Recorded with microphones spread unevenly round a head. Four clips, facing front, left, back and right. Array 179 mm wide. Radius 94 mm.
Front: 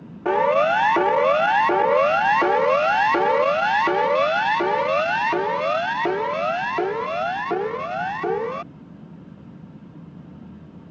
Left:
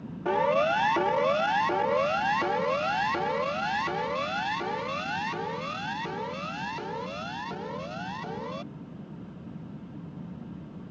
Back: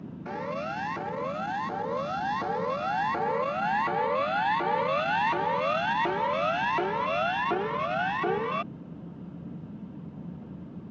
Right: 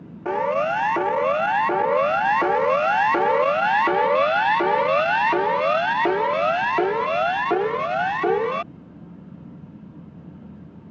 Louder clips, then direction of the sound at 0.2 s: Right 2 dB, front 16 dB; 5° right.